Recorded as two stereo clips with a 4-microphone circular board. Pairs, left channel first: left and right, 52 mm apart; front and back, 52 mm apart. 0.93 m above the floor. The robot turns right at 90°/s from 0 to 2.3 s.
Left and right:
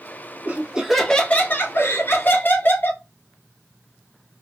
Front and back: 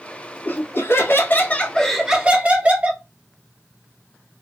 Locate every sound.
0.5 s laughter: 40° right, 0.8 m; by 3.0 s 125° left, 0.8 m